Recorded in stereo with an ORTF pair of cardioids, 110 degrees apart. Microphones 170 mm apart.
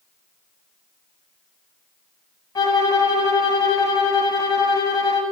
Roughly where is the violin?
Ahead.